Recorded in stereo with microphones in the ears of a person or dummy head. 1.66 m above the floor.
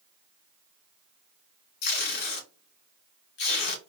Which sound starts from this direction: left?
Tape being pulled, at 1.8 s.